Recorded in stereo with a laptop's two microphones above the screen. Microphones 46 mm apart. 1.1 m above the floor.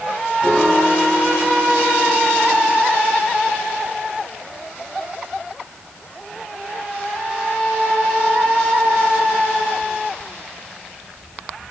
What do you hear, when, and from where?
0.4 s a piano: 5° left (ahead or behind), 0.8 m